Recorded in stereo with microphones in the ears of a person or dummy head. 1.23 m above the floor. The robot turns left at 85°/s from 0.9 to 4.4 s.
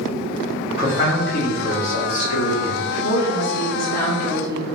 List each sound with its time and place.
0.8 s a man speaking: 150° right, 1.2 m; by 2.9 s 45° left, 1.2 m
3.0 s a woman speaking: 100° left, 1.3 m; by 4.6 s 15° right, 1.3 m